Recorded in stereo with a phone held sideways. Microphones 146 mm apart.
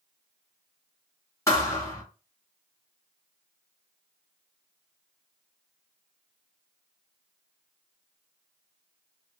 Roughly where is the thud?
Centre.